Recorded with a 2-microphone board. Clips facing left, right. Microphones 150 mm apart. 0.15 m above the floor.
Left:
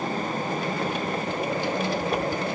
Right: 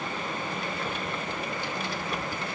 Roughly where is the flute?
I don't hear a flute.